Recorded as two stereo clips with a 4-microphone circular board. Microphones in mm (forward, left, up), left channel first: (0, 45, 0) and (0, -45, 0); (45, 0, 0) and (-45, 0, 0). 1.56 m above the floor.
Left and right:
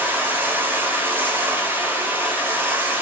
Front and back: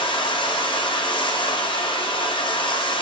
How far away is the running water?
About 2 m.